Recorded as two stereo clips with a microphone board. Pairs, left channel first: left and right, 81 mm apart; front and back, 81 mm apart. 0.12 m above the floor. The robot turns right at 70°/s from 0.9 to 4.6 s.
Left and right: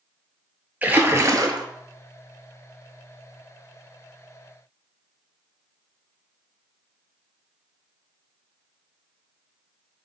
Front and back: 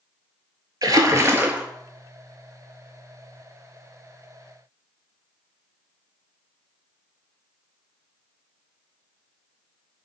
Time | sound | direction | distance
0.8 | a splash | 155° right | 0.6 m